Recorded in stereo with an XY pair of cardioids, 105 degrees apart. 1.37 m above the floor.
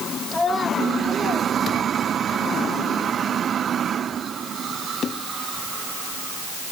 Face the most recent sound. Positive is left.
turn(degrees=-45)